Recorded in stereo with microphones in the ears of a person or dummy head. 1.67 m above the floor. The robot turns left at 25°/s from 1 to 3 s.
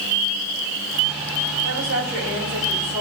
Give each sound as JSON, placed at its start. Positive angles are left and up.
{"t": 1.6, "sound": "a woman speaking", "azimuth_deg": -115, "distance_m": 4.0}